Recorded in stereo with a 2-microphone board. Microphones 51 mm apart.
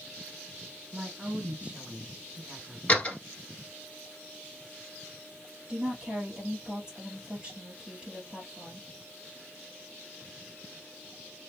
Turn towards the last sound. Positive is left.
turn(degrees=-15)  # may be behind; listen again after turning